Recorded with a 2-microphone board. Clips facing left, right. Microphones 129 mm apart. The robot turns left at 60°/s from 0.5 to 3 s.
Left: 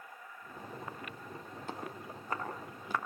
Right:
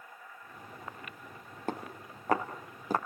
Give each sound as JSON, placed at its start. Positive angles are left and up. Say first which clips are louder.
{"t": 1.7, "sound": "footsteps", "louder": "right 5 dB", "side_deg": -55, "distance_m": 4.0}